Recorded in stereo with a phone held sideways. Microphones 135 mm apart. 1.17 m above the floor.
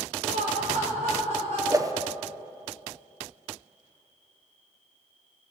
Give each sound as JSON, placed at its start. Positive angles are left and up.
{"t": 0.2, "sound": "laughter", "side_deg": -70, "distance_m": 3.5}
{"t": 1.7, "sound": "a whoosh", "side_deg": -25, "distance_m": 0.7}